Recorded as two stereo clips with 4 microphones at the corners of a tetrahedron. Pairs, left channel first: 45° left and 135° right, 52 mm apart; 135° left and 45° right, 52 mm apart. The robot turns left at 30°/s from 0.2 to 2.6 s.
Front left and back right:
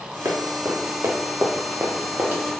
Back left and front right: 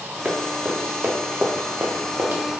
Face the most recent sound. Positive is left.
turn(degrees=-90)